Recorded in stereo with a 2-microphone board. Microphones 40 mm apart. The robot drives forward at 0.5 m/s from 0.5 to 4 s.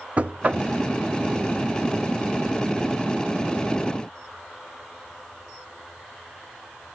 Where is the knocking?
35° right (ahead or behind), 0.8 m.